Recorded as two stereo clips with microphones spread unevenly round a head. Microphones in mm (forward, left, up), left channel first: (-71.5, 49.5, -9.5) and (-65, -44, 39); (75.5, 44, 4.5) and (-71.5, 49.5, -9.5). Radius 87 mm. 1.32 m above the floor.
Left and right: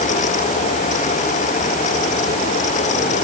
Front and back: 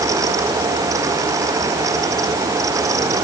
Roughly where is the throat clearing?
No throat clearing in this recording.